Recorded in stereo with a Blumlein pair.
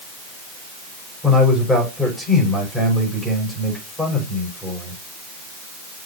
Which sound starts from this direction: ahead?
A man speaking, at 1.2 s.